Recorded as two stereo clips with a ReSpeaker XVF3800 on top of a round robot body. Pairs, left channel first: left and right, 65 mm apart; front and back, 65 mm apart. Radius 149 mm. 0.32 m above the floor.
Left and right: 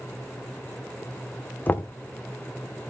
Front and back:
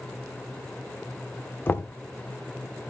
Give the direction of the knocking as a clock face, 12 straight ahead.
11 o'clock.